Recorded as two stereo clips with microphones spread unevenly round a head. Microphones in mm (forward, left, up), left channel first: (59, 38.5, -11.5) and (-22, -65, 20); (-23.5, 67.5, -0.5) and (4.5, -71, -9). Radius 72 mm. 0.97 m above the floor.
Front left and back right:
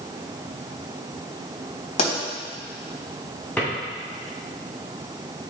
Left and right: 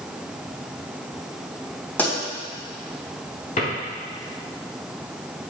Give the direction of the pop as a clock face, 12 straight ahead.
11 o'clock.